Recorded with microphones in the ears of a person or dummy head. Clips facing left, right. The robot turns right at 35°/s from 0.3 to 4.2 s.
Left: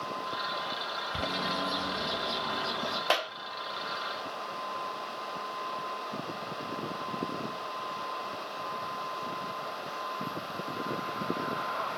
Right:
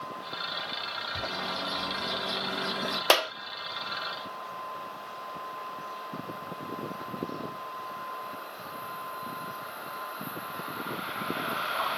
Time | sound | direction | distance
1.1 | a bird | 35° left (ahead or behind) | 0.5 m
3.1 | a clap | 65° right (ahead or behind) | 0.6 m